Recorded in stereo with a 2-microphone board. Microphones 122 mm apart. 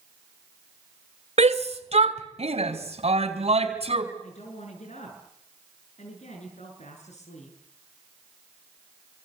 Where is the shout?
60° right (ahead or behind), 2.5 m; by 4.0 s 55° right (ahead or behind), 5 m.